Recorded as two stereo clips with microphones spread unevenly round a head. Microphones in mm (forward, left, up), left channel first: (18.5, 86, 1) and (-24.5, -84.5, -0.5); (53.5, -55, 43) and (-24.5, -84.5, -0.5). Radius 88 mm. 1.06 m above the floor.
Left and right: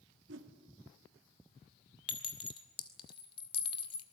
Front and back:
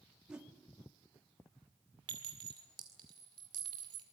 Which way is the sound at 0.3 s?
85° right.